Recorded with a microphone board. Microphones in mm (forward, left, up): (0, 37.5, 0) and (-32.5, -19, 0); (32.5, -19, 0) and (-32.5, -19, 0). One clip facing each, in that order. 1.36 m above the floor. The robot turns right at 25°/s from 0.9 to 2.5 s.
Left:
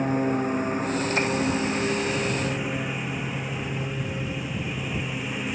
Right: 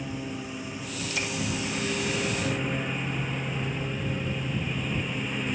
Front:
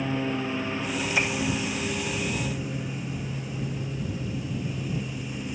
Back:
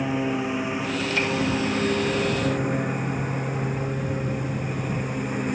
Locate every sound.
0.0 s a lawn mower: 105° left; by 5.5 s 145° left